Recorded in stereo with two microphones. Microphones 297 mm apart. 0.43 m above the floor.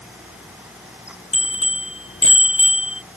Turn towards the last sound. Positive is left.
turn(degrees=45)  # may be behind; listen again after turning